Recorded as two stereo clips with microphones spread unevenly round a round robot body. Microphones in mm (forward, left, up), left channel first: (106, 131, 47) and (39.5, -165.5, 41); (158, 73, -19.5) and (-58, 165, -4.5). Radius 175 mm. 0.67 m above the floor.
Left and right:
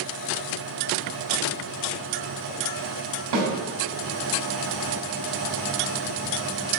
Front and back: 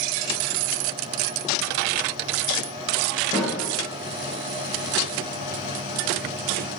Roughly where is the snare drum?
Right.